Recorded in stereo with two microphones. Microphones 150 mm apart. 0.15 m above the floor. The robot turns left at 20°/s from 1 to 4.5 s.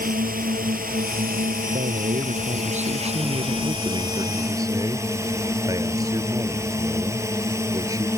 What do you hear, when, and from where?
0.0 s a drone: 90° right; by 8.2 s 160° right
1.7 s a man speaking: 95° right; by 8.1 s 155° right